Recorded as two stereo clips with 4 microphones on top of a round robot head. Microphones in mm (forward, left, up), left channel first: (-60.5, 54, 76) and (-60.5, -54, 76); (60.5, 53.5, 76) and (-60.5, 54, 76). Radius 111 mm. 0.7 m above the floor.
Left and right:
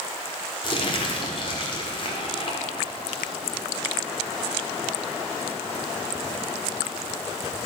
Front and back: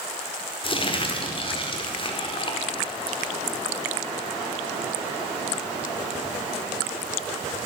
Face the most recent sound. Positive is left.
turn(degrees=45)